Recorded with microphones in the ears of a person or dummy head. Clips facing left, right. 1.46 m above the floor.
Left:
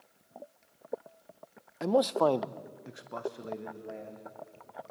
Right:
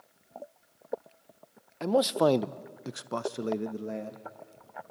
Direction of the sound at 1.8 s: 5° left (ahead or behind).